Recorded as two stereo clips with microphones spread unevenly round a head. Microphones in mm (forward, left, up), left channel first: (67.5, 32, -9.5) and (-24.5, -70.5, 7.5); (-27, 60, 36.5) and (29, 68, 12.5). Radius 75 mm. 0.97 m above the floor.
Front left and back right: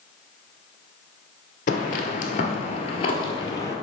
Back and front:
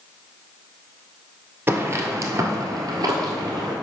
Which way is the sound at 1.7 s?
70° left.